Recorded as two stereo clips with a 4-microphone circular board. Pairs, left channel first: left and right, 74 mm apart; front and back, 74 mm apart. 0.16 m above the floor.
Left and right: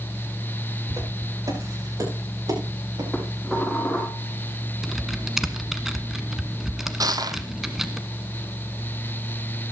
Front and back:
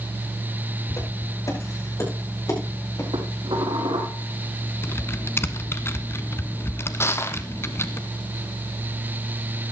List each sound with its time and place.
0.9 s footsteps: 50° right, 10 m; by 3.0 s 55° right, 8.5 m
3.1 s dishes clattering: 175° left, 6 m
4.8 s typing on a keyboard: 10° right, 1.1 m
7.0 s crushing: 55° right, 0.9 m